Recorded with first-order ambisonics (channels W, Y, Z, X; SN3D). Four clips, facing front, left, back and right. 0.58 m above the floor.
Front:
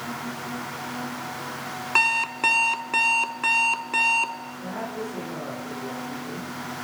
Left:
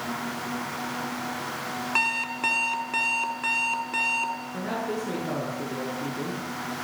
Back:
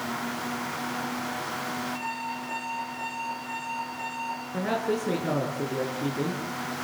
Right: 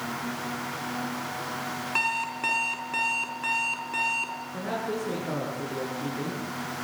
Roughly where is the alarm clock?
Ahead.